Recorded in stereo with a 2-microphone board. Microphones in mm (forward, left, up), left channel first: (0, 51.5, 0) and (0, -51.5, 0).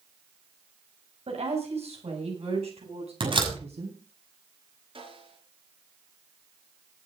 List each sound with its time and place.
1.3 s a woman speaking: 85° right, 8 m; by 4.0 s 75° right (ahead or behind), 10.5 m
3.2 s a door slam: 55° right (ahead or behind), 6 m
5.0 s a snare drum: 60° right (ahead or behind), 7.5 m